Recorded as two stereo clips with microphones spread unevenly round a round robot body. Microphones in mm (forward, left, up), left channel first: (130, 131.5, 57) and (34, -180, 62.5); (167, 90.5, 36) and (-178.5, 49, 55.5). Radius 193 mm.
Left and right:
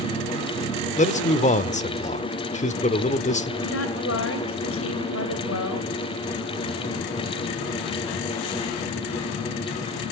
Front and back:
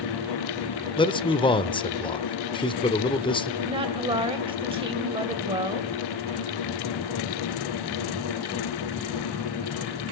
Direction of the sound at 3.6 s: 110° left.